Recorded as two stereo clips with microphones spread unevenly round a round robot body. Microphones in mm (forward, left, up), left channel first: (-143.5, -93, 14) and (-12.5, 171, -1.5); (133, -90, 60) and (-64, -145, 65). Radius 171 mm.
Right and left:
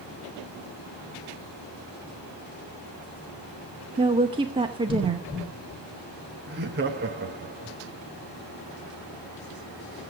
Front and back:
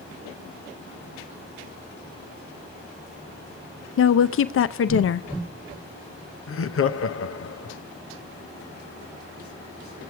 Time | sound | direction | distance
4.0 | a woman speaking | 15° right | 0.6 m
6.5 | laughter | 5° left | 0.9 m